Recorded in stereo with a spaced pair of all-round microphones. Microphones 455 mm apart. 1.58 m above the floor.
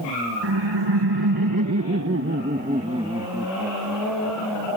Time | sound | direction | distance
0.4 | laughter | 65° right (ahead or behind) | ?